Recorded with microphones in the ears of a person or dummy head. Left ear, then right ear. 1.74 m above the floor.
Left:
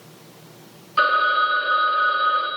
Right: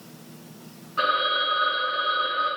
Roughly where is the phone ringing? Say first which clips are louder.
Left 5 dB; left.